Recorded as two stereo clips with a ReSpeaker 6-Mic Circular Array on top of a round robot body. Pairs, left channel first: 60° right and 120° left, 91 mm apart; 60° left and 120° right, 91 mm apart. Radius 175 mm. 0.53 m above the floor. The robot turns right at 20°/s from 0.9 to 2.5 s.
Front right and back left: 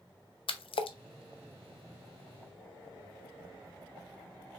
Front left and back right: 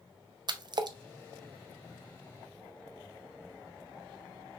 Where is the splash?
80° right, 0.6 m.